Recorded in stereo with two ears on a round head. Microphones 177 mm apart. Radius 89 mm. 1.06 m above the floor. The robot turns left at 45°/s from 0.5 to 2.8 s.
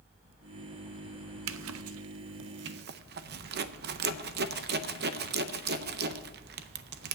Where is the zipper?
65° right (ahead or behind), 0.6 m; by 7.2 s 50° right (ahead or behind), 0.6 m.